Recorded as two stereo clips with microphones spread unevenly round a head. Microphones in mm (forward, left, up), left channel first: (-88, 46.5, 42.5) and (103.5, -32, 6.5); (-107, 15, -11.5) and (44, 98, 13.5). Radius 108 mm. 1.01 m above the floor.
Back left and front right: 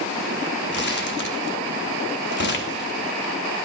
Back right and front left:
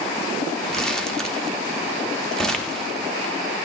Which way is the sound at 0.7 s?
120° left.